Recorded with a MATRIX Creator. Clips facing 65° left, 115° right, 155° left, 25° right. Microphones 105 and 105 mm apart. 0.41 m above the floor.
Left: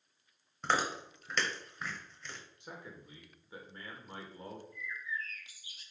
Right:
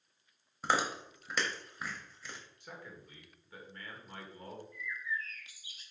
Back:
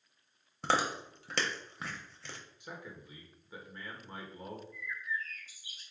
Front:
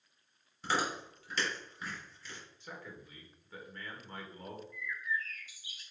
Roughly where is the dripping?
No dripping in this recording.